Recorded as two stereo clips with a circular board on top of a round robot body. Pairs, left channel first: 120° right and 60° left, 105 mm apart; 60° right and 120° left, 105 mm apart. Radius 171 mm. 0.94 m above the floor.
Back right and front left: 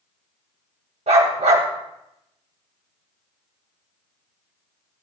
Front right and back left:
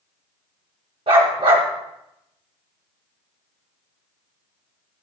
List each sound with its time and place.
1.1 s a dog barking: 80° left, 2 m